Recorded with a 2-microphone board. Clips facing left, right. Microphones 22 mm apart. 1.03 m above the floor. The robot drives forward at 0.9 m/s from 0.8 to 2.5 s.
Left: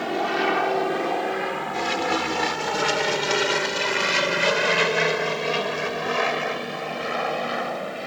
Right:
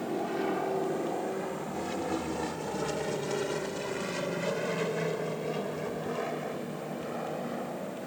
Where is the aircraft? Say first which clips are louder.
Left 8 dB; 65° left (ahead or behind); by 8.1 s 75° left (ahead or behind).